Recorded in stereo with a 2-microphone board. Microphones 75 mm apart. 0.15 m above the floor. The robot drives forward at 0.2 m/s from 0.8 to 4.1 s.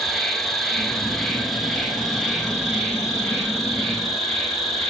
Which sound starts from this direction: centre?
An insect, at 0.0 s.